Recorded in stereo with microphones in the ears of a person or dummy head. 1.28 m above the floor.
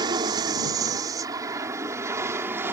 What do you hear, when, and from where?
0.0 s an aircraft: 20° right (ahead or behind); by 2.7 s 10° right (ahead or behind)